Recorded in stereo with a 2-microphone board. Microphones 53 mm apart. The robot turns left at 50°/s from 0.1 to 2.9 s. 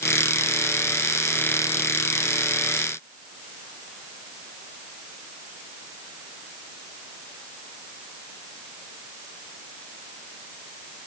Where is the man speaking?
No man speaking in this recording.